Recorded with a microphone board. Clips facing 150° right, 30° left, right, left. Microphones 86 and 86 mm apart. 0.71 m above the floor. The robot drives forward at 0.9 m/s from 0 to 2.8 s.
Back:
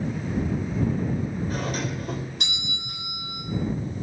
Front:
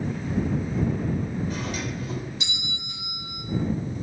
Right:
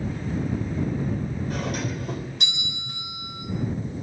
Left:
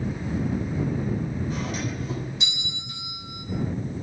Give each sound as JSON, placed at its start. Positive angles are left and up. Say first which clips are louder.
{"t": 1.5, "sound": "a doorbell", "louder": "back 2 dB, right 1 dB", "azimuth_deg": -110, "distance_m": 3.5}